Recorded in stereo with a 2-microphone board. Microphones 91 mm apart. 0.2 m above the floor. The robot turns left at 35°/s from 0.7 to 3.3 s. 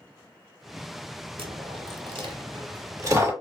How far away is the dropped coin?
About 0.8 m.